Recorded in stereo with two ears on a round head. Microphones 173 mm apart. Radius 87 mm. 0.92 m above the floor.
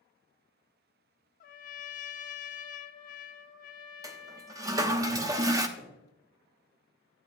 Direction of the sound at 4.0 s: 20° right (ahead or behind).